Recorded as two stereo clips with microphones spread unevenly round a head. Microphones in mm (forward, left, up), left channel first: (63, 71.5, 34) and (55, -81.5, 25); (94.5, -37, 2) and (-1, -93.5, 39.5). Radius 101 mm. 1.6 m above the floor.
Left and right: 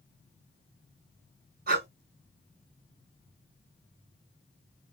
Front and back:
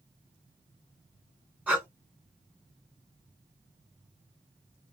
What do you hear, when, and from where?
1.7 s breathing: 80° right, 3.5 m